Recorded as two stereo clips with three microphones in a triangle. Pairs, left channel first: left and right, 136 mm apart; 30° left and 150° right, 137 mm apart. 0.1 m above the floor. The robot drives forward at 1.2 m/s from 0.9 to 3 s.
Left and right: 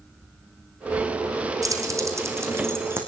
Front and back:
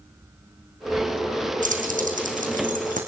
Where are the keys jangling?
155° right, 3.5 m; by 3.0 s 165° right, 5 m.